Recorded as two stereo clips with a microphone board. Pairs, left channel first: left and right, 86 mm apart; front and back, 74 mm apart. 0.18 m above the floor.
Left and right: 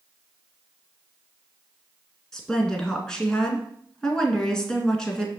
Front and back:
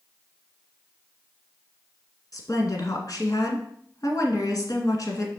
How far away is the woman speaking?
About 1.9 m.